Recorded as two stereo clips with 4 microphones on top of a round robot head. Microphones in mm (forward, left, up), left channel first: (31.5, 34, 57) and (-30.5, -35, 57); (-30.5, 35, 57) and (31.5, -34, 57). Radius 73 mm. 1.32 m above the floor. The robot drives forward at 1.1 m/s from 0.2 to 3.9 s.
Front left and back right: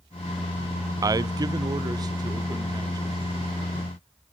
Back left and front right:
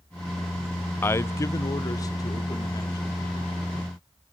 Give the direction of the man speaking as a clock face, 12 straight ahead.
6 o'clock.